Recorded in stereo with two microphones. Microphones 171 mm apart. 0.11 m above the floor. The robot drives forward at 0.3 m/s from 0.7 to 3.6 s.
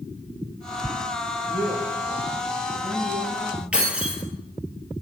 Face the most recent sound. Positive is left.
turn(degrees=-5)  # may be behind; listen again after turning